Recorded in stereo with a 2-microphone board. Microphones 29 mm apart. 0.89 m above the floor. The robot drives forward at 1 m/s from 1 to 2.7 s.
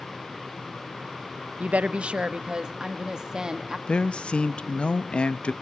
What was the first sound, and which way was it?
A woman speaking, 50° right (ahead or behind).